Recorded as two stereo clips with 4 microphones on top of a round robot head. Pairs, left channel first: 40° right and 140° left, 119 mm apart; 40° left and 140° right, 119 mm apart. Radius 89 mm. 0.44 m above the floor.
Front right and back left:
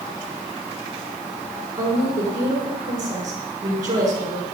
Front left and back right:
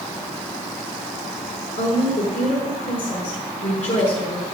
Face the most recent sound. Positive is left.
turn(degrees=75)